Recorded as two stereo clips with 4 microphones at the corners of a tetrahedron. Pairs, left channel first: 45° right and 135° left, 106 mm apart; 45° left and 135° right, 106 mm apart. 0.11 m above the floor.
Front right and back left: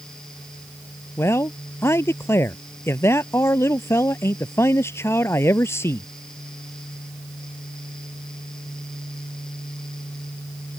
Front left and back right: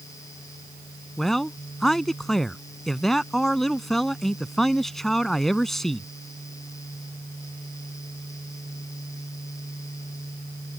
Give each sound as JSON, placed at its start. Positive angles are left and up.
{"t": 1.2, "sound": "a man speaking", "azimuth_deg": -40}